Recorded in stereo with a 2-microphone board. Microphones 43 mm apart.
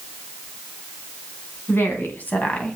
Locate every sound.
1.7 s a woman speaking: 55° left (ahead or behind), 3 m; by 2.8 s 25° left (ahead or behind), 2 m